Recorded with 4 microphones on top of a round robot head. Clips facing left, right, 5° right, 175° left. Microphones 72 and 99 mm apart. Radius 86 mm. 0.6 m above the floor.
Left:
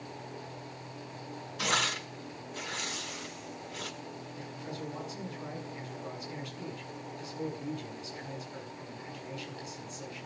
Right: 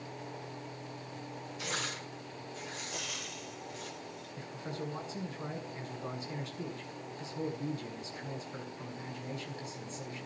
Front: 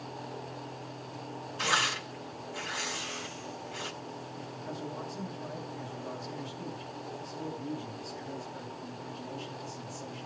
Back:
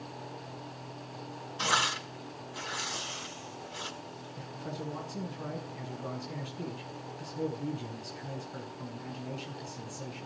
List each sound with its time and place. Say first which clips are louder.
1.6 s tearing paper: left 8 dB, back 1 dB; 110° left, 5.5 m
2.9 s frying: left 1 dB, front 1 dB; 110° right, 4 m
4.4 s a man speaking: right 2 dB, back 2 dB; 150° right, 7 m